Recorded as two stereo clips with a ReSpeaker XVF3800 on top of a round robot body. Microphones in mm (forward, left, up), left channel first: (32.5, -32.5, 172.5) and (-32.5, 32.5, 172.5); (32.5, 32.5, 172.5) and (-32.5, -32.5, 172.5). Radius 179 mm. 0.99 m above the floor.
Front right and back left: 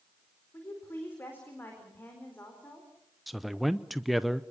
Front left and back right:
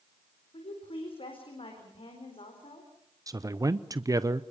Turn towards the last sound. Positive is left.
turn(degrees=-135)